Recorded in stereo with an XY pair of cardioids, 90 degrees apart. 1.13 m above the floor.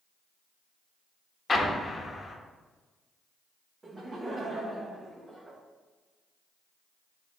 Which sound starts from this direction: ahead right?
Laughter, at 3.8 s.